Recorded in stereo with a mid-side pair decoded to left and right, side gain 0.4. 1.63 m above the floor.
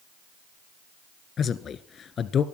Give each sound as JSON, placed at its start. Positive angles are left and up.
{"t": 1.4, "sound": "a man speaking", "azimuth_deg": 65, "distance_m": 1.5}